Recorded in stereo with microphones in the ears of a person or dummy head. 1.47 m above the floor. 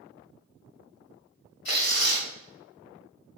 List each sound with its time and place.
1.6 s tearing paper: 50° left (ahead or behind), 1.9 m